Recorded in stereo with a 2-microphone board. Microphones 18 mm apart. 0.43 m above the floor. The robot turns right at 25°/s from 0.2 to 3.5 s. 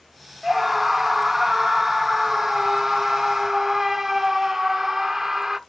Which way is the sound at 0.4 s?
10° right (ahead or behind).